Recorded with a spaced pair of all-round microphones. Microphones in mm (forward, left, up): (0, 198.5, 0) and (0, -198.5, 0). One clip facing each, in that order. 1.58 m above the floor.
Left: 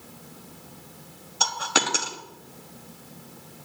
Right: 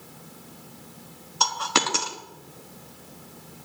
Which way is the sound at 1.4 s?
10° right (ahead or behind).